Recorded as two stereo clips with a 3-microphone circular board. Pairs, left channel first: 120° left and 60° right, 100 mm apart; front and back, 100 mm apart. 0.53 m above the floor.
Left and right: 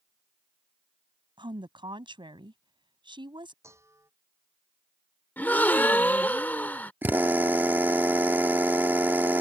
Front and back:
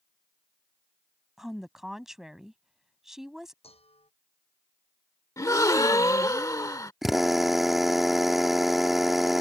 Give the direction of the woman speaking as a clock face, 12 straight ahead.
3 o'clock.